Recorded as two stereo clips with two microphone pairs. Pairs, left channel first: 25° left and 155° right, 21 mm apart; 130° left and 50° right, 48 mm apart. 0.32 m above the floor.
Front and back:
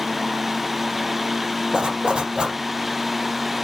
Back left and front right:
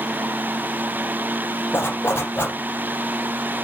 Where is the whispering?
No whispering in this recording.